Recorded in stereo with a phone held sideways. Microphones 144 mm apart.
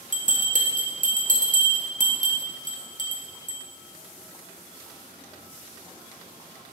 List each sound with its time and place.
0.1 s a bell: 60° right (ahead or behind), 1.2 m